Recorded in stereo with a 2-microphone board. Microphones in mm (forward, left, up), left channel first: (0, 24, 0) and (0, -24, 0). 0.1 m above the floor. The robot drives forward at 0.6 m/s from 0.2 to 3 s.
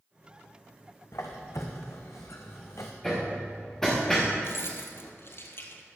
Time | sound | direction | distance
1.1 | a squeak | 70° left (ahead or behind) | 1.8 m
3.0 | hammering | 10° left (ahead or behind) | 3.5 m
4.4 | keys jangling | 55° left (ahead or behind) | 1.7 m